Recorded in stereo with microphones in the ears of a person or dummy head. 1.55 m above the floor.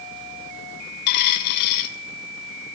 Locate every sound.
1.1 s a dropped coin: 55° left (ahead or behind), 2.5 m